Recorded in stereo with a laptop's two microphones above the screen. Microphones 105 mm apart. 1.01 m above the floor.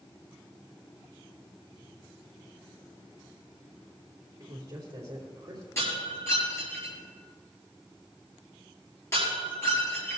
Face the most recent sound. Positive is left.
turn(degrees=30)  # may be behind; listen again after turning